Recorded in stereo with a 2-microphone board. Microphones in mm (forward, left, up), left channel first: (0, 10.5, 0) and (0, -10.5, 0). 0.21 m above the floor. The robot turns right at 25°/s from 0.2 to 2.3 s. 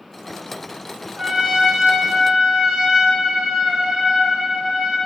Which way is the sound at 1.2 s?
60° right (ahead or behind).